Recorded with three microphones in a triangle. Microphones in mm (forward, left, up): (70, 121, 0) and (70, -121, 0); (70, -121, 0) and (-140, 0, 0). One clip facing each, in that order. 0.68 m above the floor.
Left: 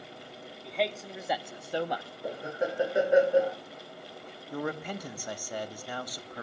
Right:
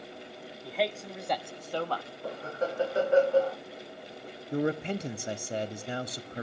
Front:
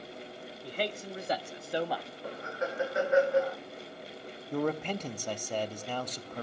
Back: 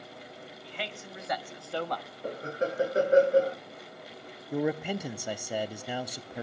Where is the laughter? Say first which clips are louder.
Left 1 dB, back 5 dB; 155° left, 0.9 m.